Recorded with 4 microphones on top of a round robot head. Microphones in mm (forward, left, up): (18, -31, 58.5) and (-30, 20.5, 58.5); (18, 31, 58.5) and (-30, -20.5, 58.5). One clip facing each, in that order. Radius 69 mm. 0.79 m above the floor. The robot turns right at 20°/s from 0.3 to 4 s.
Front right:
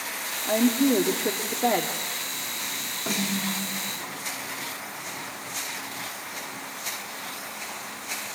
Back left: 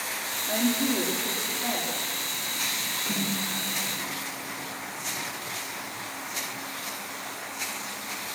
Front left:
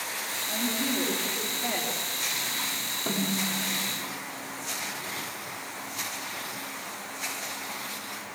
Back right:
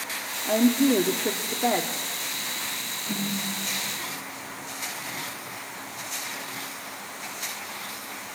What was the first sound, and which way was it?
A woman speaking, 110° right.